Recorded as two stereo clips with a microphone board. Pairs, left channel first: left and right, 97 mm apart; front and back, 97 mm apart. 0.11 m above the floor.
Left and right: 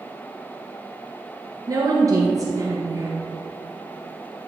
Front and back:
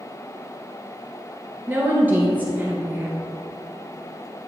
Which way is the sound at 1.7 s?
120° right.